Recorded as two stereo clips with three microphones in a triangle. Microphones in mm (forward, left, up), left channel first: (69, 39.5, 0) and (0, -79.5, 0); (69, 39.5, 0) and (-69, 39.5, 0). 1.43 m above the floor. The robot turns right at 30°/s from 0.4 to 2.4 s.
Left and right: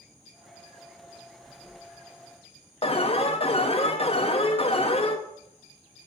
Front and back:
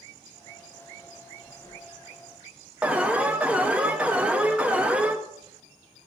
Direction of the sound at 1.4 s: 110° left.